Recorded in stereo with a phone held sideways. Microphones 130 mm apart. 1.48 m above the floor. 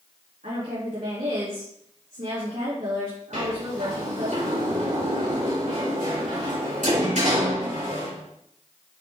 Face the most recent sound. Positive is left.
turn(degrees=-75)  # may be behind; listen again after turning